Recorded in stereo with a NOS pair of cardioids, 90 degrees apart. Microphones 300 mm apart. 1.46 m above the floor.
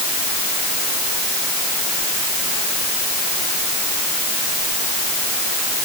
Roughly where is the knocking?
I don't hear knocking.